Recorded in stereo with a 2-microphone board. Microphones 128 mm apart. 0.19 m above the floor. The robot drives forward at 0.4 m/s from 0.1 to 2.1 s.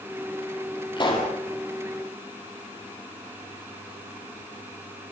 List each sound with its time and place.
1.0 s a pop: 40° left (ahead or behind), 5.5 m; by 1.3 s 35° left (ahead or behind), 5.5 m